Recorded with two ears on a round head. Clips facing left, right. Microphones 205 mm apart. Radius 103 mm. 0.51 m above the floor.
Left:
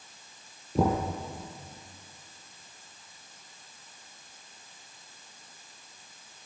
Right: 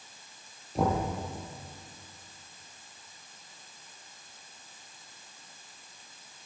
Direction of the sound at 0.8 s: 80° left.